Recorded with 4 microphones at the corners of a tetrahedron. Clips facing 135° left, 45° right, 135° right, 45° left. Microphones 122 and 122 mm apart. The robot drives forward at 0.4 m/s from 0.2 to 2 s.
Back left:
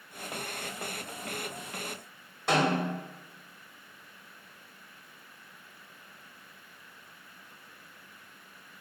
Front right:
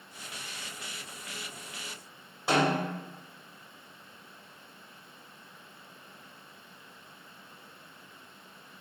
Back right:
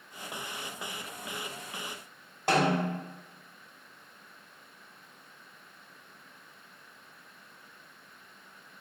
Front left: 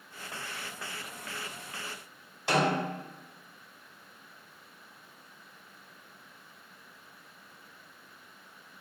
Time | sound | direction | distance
2.5 | a snare drum | 125° right | 1.6 m